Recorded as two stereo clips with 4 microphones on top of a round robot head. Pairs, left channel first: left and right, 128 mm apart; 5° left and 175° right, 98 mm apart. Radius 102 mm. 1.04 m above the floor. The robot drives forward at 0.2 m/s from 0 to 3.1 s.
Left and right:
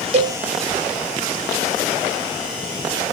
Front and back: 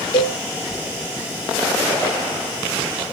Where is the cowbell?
50° right, 0.6 m; by 0.4 s 55° right, 0.5 m.